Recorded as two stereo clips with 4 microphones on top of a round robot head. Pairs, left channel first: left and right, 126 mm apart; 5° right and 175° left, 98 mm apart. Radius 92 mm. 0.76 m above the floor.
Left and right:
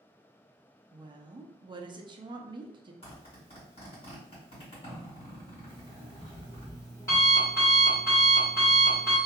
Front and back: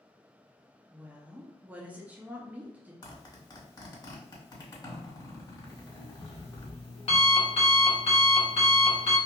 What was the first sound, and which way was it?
A woman speaking, 115° right.